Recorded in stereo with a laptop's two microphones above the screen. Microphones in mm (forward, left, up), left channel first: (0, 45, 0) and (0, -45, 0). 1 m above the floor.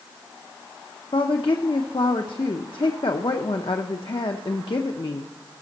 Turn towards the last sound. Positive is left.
turn(degrees=65)  # may be behind; listen again after turning